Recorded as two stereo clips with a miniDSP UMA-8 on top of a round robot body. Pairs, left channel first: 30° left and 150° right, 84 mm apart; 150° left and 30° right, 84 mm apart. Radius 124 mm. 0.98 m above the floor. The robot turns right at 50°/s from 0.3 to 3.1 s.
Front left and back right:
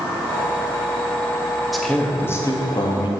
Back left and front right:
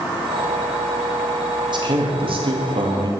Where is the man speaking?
65° right, 2.5 m; by 3.1 s 10° left, 2.5 m.